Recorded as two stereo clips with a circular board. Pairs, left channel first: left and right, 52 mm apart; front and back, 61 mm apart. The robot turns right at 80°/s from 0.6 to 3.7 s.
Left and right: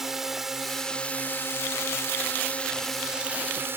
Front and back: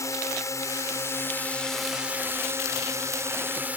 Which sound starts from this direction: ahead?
A drone, at 0.0 s.